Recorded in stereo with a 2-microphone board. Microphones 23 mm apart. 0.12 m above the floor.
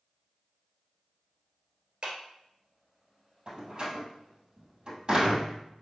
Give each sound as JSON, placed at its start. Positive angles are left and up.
{"t": 2.0, "sound": "a clap", "side_deg": -45, "distance_m": 1.9}
{"t": 3.5, "sound": "a door slam", "side_deg": -40, "distance_m": 2.0}